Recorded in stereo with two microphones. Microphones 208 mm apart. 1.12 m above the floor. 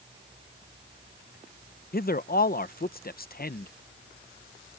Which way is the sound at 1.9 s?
45° left (ahead or behind).